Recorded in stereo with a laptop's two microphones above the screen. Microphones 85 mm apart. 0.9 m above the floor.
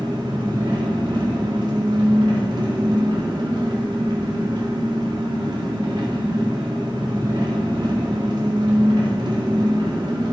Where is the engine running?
60° right (ahead or behind), 2.0 m.